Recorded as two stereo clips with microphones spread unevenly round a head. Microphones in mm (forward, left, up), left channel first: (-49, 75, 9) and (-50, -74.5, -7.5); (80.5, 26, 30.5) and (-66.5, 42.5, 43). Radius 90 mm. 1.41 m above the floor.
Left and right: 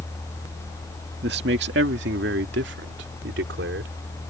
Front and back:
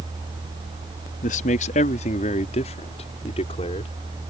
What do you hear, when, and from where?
1.2 s a man speaking: 50° right; by 3.9 s 65° right